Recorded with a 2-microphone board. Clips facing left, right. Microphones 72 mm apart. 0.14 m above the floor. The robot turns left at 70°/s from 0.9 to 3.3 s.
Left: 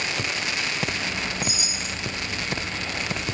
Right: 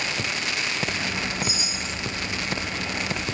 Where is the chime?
130° left, 3.5 m; by 2.0 s 90° left, 3.5 m.